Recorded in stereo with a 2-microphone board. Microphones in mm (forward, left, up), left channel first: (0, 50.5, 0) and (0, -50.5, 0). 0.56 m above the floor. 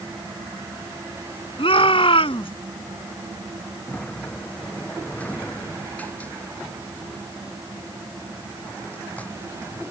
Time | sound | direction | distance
1.6 | a shout | 60° left (ahead or behind) | ?
3.9 | a sliding door | 15° left (ahead or behind) | ?